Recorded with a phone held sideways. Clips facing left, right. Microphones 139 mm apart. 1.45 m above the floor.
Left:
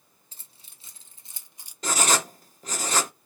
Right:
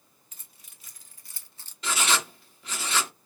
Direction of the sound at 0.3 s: 30° left (ahead or behind).